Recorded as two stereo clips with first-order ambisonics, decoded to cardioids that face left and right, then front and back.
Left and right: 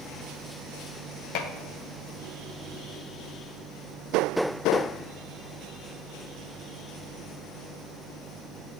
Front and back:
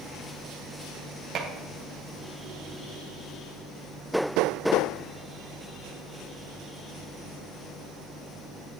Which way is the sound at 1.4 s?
120° left.